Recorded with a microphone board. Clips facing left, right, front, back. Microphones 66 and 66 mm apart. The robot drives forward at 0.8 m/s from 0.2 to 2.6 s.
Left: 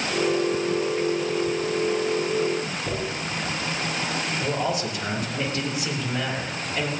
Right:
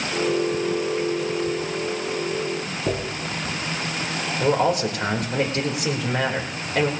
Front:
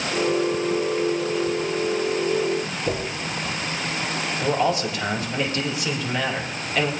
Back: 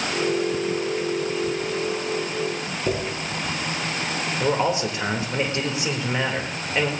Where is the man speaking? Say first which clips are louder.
Right 8 dB, even; 115° right, 3 m.